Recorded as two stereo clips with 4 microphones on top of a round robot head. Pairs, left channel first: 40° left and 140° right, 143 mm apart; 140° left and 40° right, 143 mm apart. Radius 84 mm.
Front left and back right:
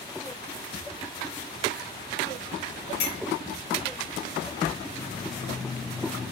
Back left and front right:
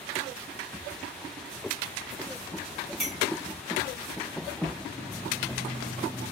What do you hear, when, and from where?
3.0 s a clink: 50° left, 0.9 m